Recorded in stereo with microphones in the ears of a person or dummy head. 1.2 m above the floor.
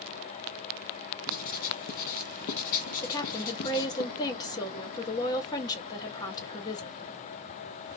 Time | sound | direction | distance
1.3 | writing | 45° left (ahead or behind) | 0.8 m
3.0 | a woman speaking | 20° left (ahead or behind) | 0.9 m